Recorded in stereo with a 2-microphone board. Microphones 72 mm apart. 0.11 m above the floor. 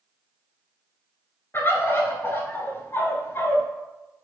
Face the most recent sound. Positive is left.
turn(degrees=30)  # may be behind; listen again after turning